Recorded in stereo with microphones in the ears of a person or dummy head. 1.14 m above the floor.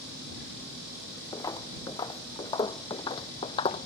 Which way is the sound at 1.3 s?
15° left (ahead or behind).